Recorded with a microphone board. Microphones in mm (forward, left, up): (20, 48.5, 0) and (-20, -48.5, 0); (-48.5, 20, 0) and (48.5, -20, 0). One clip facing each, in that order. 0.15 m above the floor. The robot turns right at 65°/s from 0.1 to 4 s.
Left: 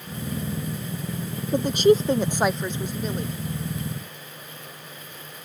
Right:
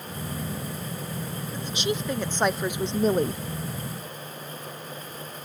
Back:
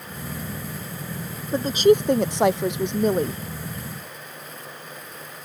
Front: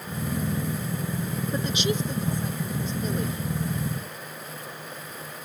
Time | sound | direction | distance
1.5 | a woman speaking | 95° left | ?